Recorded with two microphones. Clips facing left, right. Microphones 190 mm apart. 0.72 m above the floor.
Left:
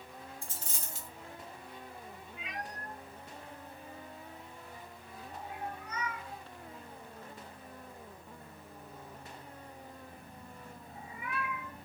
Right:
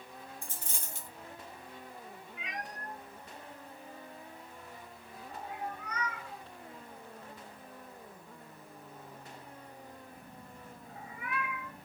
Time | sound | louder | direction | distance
0.4 | a dropped coin | even | 50° right (ahead or behind) | 1.8 m
2.4 | a cat meowing | even | 65° right (ahead or behind) | 1.7 m